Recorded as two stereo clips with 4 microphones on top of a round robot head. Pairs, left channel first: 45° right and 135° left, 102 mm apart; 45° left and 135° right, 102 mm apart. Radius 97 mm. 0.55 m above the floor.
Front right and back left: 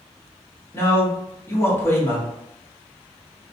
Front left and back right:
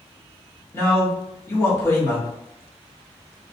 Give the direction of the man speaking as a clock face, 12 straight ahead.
12 o'clock.